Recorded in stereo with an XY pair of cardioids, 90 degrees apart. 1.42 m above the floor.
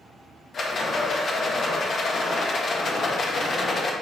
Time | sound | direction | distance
0.5 | a rattle | 55° left | 1.7 m